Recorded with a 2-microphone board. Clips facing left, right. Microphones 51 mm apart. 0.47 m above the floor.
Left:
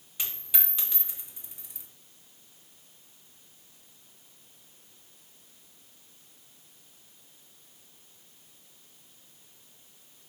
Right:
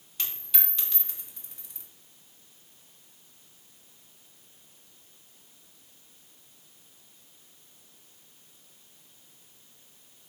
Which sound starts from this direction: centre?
A dropped coin, at 0.2 s.